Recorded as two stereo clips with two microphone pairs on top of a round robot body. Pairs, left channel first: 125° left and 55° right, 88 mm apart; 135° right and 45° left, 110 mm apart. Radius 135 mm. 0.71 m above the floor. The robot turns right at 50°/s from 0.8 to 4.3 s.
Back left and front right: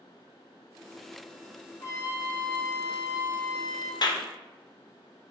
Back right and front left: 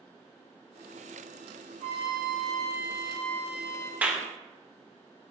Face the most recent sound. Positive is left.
turn(degrees=135)